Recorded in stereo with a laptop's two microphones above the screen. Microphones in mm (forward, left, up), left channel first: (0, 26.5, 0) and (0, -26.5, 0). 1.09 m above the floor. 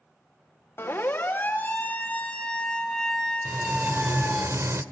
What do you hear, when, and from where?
0.8 s a siren: 50° left (ahead or behind), 3 m; by 4.5 s 5° right (ahead or behind), 4.5 m
3.5 s frying: 60° right (ahead or behind), 1.7 m